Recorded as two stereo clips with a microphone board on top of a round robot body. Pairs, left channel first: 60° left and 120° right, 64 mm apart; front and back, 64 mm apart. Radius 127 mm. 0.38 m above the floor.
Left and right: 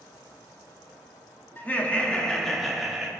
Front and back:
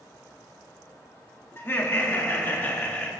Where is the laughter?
20° left, 1.6 m; by 3.1 s 50° right, 1.5 m.